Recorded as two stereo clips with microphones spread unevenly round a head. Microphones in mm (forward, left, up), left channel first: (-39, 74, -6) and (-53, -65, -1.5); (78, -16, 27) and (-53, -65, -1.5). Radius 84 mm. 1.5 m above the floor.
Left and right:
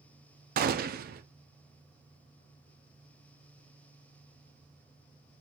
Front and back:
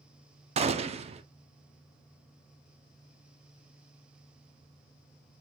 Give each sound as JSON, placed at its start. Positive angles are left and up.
{"t": 0.6, "sound": "a gunshot", "azimuth_deg": -115, "distance_m": 0.5}